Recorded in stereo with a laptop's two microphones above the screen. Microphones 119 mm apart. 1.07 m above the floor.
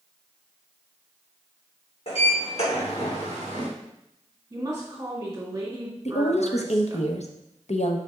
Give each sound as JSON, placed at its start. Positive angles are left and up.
{"t": 2.1, "sound": "a sliding door", "side_deg": 60, "distance_m": 2.5}
{"t": 4.5, "sound": "a woman speaking", "side_deg": -25, "distance_m": 2.0}
{"t": 6.0, "sound": "a woman speaking", "side_deg": 65, "distance_m": 0.9}